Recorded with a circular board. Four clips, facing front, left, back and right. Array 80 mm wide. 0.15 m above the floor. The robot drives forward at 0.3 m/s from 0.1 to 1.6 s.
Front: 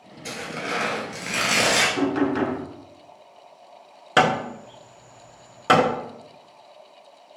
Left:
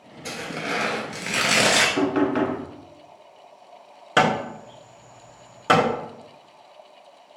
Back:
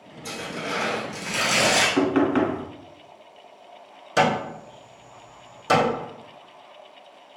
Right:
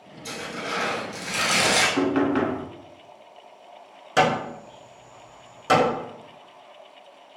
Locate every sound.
0.2 s tearing paper: 50° left, 1.0 m; by 1.9 s 75° left, 0.8 m
2.0 s knocking: straight behind, 0.9 m
4.2 s hammering: 30° left, 0.6 m